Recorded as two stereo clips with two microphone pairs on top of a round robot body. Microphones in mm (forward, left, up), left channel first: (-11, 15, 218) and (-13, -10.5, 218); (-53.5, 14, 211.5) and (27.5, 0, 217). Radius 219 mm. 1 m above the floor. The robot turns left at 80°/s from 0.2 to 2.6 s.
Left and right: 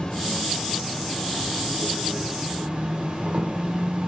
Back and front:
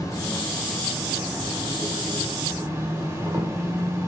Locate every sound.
0.0 s an insect: 135° left, 2 m; by 4.1 s 60° right, 2 m